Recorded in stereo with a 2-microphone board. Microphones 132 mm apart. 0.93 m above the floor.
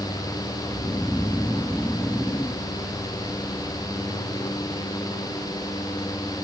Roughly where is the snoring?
Centre.